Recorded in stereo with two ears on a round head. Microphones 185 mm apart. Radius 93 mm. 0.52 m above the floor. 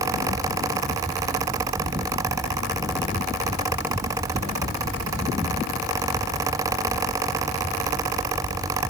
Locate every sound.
Only background noise.